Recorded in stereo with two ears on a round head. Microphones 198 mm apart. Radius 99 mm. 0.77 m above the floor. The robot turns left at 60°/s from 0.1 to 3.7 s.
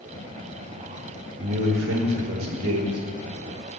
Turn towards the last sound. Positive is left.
turn(degrees=160)